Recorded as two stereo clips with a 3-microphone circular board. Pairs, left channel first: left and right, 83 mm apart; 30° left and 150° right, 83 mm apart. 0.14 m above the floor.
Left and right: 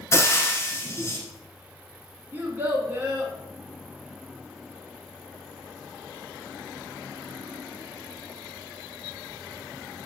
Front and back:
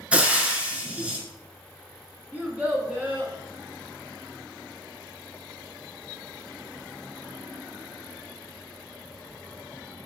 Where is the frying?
135° left, 1.1 m.